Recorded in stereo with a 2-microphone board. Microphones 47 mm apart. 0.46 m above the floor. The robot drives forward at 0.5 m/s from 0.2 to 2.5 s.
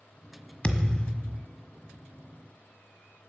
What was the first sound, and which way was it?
A thud, 20° left (ahead or behind).